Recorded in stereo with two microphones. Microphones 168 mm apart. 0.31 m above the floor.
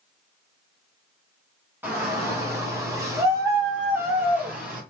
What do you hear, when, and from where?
1.8 s a shout: 15° right (ahead or behind), 1.2 m; by 4.8 s 10° right (ahead or behind), 1.8 m